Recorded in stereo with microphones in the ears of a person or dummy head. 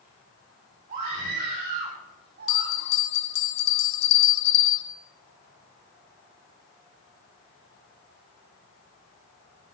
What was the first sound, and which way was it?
A scream, 40° right (ahead or behind).